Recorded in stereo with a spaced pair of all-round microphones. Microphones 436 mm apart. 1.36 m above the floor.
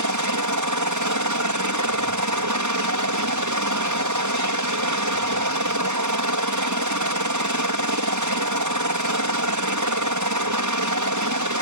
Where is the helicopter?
40° right (ahead or behind).